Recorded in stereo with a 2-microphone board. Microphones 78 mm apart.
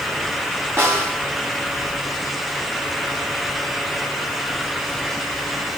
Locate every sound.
0.8 s a snare drum: 30° right (ahead or behind), 2.5 m